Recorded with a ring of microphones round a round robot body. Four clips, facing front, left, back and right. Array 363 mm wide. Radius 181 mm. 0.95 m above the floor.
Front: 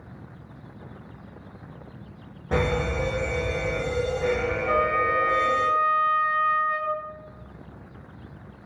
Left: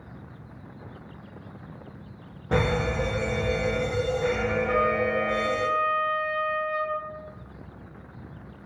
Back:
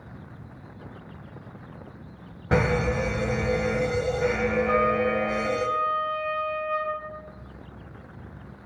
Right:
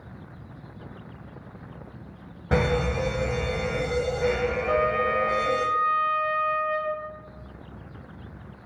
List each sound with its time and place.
2.5 s a fire alarm: 160° right, 1.3 m
4.7 s a trumpet: 45° right, 1.7 m